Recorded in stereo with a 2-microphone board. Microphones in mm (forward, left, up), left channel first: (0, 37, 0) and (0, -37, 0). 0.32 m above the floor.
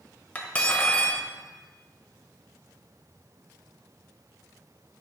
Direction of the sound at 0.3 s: 20° left (ahead or behind).